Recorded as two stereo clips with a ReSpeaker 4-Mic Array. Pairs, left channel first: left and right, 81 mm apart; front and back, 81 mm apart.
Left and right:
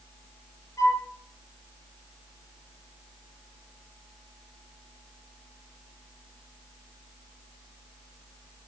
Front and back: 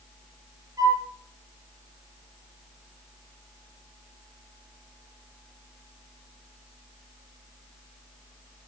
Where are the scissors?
I don't hear scissors.